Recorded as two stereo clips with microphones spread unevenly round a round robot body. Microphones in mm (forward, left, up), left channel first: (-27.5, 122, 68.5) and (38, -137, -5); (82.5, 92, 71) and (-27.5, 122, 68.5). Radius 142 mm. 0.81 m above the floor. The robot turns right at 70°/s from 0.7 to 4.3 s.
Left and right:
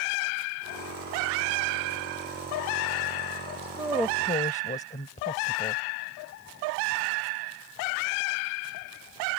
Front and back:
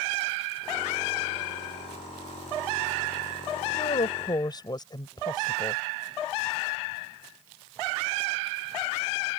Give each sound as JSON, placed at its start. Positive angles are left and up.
{"t": 3.6, "sound": "a woman speaking", "azimuth_deg": -10}